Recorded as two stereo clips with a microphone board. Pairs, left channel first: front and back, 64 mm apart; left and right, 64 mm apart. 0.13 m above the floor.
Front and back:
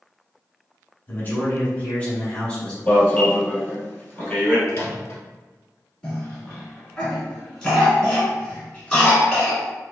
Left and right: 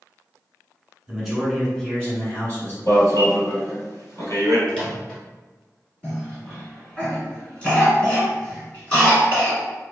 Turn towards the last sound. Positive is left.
turn(degrees=60)